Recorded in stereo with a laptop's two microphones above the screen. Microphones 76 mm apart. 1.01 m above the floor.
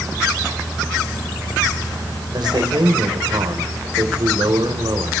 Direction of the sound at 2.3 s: 70° right (ahead or behind).